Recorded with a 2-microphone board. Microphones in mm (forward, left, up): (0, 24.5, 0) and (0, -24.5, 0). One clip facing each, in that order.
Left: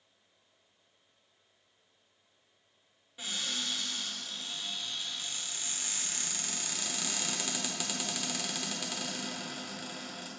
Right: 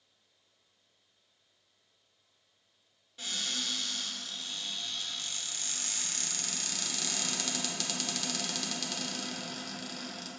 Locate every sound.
3.2 s a cupboard door: 15° left (ahead or behind), 1.1 m